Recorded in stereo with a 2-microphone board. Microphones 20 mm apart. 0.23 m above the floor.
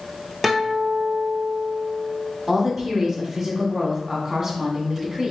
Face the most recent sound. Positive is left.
turn(degrees=-20)  # may be behind; listen again after turning